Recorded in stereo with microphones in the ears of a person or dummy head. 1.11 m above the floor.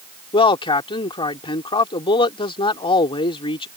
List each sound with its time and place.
0.3 s a man speaking: 35° left (ahead or behind)